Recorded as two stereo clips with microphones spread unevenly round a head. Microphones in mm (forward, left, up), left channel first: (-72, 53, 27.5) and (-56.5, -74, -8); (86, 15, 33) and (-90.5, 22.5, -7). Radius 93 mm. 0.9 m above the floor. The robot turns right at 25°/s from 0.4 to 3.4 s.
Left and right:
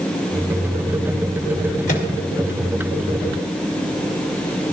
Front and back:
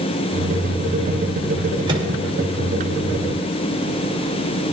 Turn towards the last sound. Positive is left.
turn(degrees=150)